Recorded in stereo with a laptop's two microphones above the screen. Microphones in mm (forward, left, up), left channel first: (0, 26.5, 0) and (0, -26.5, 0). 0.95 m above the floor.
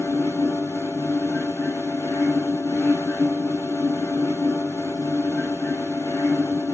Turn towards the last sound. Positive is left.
turn(degrees=80)